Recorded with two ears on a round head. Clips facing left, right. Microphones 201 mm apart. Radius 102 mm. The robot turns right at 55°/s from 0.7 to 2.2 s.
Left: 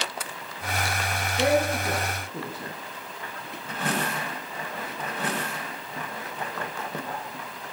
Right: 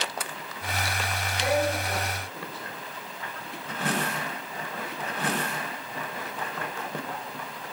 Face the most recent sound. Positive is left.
turn(degrees=80)